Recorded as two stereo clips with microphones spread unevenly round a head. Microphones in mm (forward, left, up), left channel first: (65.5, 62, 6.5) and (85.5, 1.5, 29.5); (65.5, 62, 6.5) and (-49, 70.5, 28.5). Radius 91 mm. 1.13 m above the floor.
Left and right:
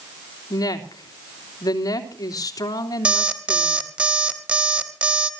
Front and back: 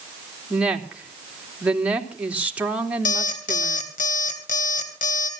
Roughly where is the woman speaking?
Left.